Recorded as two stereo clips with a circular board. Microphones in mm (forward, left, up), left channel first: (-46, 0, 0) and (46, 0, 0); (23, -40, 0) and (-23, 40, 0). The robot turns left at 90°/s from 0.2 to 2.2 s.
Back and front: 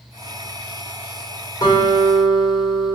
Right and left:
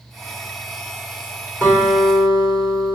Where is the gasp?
No gasp in this recording.